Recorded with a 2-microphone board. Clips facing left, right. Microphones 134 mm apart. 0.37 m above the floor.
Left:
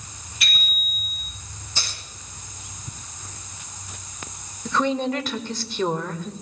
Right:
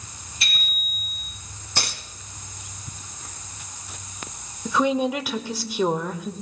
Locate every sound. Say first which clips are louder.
0.4 s a bicycle bell: left 2 dB; 30° right (ahead or behind), 8.5 m
1.8 s a dropped coin: right 5 dB; 70° right (ahead or behind), 1.6 m
4.7 s a woman speaking: right 1 dB; 10° right (ahead or behind), 1.0 m